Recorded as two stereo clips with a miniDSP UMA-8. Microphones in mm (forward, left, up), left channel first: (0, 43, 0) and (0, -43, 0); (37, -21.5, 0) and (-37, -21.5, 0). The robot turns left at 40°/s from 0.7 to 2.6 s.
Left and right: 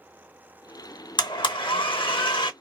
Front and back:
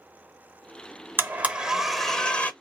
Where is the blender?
120° left, 0.7 m; by 2.5 s 70° left, 0.7 m.